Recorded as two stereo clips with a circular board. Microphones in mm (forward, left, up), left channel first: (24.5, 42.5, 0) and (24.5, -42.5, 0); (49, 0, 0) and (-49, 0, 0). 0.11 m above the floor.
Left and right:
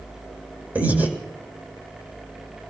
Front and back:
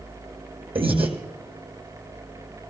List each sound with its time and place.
0.8 s breathing: 160° right, 2 m